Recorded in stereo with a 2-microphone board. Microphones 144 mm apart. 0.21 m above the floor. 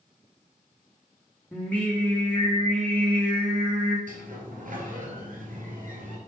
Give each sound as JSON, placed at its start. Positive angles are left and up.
{"t": 1.5, "sound": "singing", "side_deg": 10, "distance_m": 2.5}
{"t": 4.1, "sound": "a sliding door", "side_deg": -70, "distance_m": 2.0}